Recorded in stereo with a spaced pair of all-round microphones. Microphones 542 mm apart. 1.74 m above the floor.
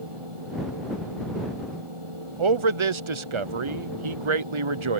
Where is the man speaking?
60° right (ahead or behind).